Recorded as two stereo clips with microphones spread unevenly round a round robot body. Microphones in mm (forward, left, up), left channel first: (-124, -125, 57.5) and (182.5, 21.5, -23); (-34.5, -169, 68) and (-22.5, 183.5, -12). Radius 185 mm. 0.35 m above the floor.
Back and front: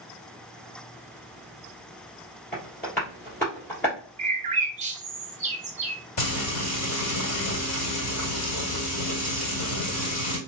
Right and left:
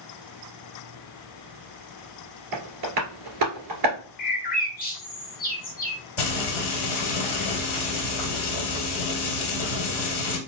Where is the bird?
20° right, 0.8 m.